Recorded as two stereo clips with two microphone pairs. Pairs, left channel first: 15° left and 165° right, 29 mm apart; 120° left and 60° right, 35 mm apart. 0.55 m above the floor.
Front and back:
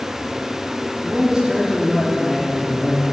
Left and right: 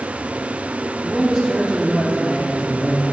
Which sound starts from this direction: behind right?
A man speaking, at 1.0 s.